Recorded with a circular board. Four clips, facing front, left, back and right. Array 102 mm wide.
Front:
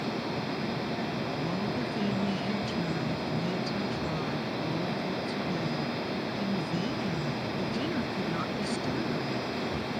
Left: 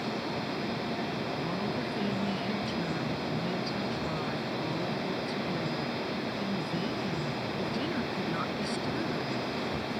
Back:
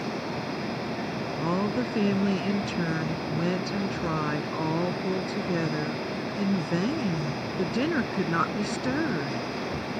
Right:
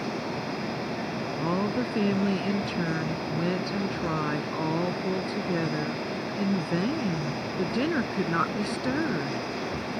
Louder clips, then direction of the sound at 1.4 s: Right 5 dB, back 5 dB; 140° right.